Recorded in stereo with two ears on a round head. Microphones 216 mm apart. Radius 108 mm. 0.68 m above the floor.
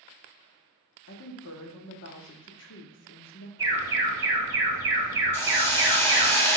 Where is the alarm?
10° right (ahead or behind), 4 m.